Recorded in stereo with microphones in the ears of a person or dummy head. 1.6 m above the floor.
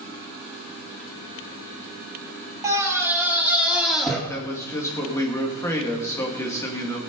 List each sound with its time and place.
2.6 s a scream: 15° right (ahead or behind), 2.5 m; by 4.2 s centre (ahead or behind), 2.5 m
4.3 s a man speaking: 10° left (ahead or behind), 2.5 m